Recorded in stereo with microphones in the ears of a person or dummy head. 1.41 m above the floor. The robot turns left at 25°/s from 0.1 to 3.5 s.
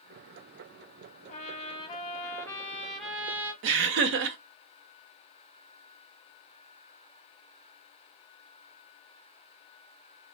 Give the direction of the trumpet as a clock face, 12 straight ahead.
11 o'clock.